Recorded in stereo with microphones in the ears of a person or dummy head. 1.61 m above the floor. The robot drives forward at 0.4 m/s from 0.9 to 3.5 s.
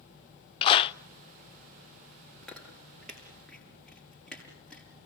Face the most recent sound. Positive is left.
turn(degrees=5)  # may be behind; listen again after turning